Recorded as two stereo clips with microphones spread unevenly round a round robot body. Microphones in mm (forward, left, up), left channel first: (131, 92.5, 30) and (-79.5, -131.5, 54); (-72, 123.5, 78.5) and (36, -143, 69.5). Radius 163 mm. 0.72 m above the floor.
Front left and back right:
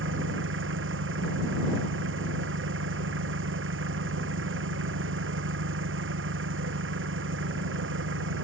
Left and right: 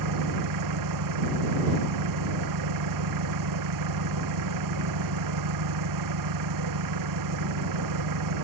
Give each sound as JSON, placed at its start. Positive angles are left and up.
{"t": 0.0, "sound": "an engine running", "azimuth_deg": -80}